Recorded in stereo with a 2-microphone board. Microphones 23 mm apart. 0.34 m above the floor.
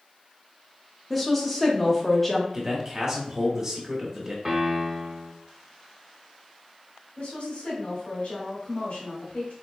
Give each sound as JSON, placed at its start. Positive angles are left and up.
{"t": 1.1, "sound": "a woman speaking", "side_deg": 0, "distance_m": 0.9}
{"t": 2.5, "sound": "a man speaking", "side_deg": -25, "distance_m": 1.2}
{"t": 4.5, "sound": "a piano", "side_deg": -20, "distance_m": 1.2}
{"t": 7.2, "sound": "a woman speaking", "side_deg": 55, "distance_m": 1.9}